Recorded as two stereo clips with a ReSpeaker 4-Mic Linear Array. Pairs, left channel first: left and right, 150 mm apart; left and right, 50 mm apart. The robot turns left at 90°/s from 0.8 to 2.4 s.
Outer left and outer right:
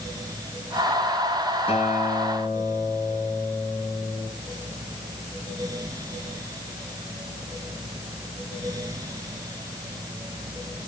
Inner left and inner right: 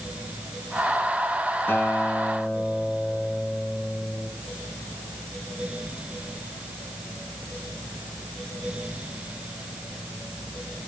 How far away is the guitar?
About 2.5 m.